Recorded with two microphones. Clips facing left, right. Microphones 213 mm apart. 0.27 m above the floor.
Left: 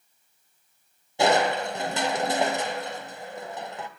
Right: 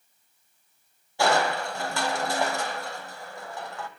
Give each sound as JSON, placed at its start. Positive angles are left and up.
{"t": 1.2, "sound": "crushing", "side_deg": 20, "distance_m": 1.2}